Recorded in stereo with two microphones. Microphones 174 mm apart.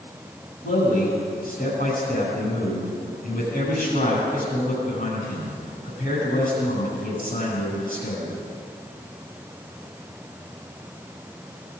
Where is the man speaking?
55° left (ahead or behind), 7.5 m.